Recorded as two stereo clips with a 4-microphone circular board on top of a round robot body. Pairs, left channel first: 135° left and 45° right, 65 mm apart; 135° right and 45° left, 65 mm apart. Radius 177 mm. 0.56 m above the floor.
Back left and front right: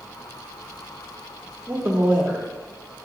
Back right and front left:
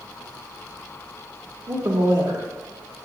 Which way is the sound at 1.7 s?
30° left.